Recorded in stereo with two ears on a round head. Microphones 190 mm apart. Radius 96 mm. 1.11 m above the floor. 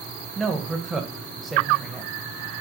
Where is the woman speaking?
Centre (ahead or behind), 0.7 m.